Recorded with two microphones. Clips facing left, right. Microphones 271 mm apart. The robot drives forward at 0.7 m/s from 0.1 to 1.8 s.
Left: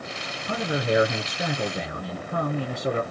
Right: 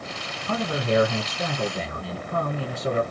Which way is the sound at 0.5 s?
15° left (ahead or behind).